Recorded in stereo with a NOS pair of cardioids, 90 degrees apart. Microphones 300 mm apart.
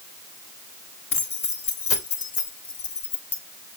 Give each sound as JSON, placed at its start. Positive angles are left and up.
{"t": 1.1, "sound": "keys jangling", "azimuth_deg": 50, "distance_m": 3.5}